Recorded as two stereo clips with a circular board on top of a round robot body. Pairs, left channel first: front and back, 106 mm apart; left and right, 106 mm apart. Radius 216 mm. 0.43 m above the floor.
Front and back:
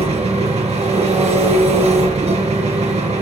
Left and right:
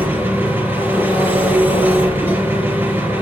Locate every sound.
0.0 s an engine running: 160° right, 3.5 m